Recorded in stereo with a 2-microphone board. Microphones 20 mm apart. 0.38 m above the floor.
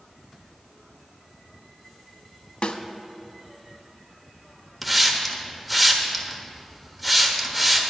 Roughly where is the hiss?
Centre.